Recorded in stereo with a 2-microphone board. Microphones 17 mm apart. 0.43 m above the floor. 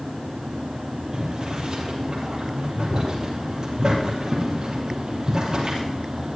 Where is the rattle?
I don't hear a rattle.